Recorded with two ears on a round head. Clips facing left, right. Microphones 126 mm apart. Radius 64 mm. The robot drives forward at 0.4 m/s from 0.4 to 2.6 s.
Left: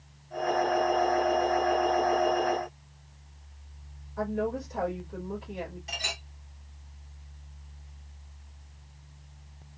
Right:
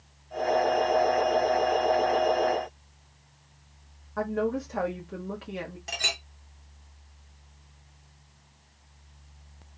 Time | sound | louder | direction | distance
4.2 | a woman speaking | right 2 dB | 75° right (ahead or behind) | 1.8 m
5.9 | a clink | right 2 dB | 60° right (ahead or behind) | 2 m